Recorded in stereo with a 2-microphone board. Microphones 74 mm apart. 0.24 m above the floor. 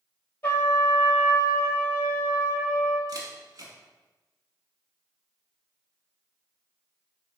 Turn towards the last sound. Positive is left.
turn(degrees=-55)  # may be behind; listen again after turning